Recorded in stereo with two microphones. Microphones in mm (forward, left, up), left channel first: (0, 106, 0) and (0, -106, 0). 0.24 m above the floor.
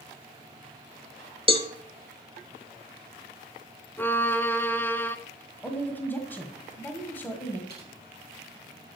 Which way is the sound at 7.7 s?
50° left (ahead or behind).